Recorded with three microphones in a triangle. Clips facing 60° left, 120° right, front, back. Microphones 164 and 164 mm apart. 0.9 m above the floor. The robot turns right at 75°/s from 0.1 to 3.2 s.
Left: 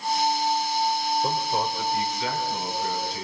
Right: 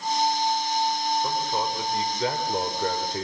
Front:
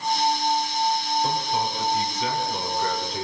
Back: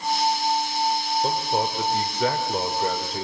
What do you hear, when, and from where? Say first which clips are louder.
1.2 s a man speaking: left 1 dB, back 1 dB; 125° left, 3.5 m; by 3.2 s 90° right, 3.5 m